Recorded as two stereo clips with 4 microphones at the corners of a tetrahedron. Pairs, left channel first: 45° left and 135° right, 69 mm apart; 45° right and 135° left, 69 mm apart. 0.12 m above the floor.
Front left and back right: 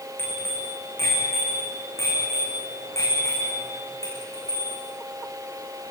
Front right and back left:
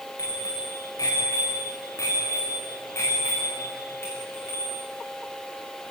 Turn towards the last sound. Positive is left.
turn(degrees=15)